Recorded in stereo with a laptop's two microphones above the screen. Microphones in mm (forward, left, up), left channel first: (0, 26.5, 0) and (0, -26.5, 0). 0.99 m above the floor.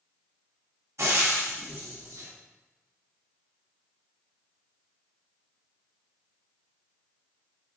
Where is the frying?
65° right (ahead or behind), 1.0 m.